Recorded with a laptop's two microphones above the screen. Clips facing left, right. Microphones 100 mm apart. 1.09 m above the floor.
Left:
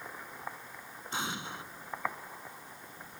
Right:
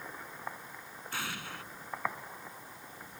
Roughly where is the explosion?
Left.